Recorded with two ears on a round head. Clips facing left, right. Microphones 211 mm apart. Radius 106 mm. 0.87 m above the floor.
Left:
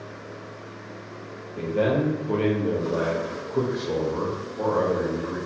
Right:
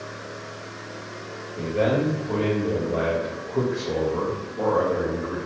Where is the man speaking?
35° left (ahead or behind), 0.9 m; by 5.4 s 20° right (ahead or behind), 1.6 m.